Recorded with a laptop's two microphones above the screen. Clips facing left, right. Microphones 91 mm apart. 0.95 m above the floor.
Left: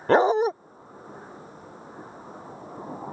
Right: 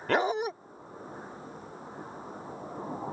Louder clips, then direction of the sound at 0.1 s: Left 8 dB; 30° left (ahead or behind).